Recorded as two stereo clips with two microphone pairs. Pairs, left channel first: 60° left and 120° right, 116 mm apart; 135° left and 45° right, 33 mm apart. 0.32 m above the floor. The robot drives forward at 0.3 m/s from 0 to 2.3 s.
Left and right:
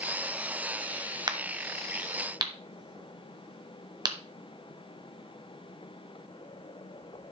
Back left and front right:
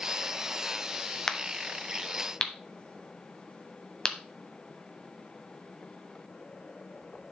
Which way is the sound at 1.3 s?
160° right.